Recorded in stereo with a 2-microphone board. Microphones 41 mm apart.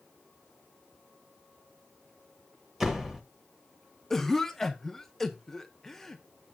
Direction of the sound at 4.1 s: 10° left (ahead or behind).